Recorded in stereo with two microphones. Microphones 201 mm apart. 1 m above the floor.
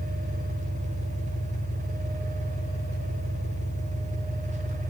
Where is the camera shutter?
I don't hear a camera shutter.